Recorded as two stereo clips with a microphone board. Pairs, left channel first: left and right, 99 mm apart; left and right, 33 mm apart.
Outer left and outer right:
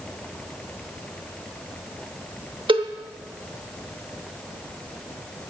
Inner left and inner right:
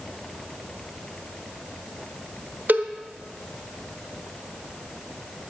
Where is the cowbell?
60° right (ahead or behind), 1.0 m.